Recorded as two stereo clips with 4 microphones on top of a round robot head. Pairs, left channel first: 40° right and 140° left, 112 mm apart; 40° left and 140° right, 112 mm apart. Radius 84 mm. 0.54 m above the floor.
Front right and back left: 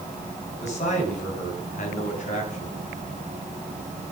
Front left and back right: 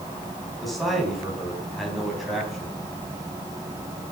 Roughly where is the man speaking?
Ahead right.